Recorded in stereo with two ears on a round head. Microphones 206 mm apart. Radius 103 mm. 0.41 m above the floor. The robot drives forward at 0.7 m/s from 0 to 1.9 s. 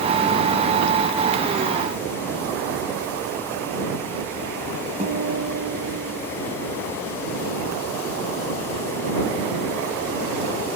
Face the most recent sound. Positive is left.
turn(degrees=-35)  # may be behind; listen again after turning